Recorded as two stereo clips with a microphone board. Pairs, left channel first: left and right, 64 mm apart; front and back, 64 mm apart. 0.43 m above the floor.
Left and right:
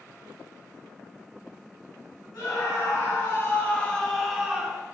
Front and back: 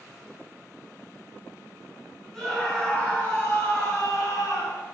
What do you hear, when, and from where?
2.3 s a scream: 90° left, 2.5 m; by 4.8 s 25° right, 2.5 m